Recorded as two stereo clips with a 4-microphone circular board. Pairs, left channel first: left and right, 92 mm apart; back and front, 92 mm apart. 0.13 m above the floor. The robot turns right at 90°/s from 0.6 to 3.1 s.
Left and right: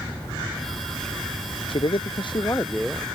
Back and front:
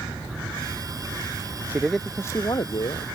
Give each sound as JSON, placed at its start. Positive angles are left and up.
{"t": 1.7, "sound": "a man speaking", "azimuth_deg": 65}